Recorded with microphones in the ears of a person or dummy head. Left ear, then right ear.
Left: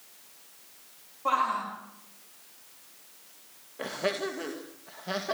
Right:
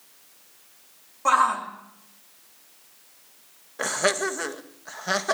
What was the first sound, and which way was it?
A shout, 60° right (ahead or behind).